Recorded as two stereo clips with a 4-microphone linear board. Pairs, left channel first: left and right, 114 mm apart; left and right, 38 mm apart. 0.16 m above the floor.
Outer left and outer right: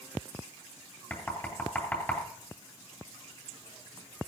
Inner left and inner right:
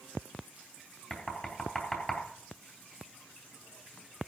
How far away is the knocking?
About 3 m.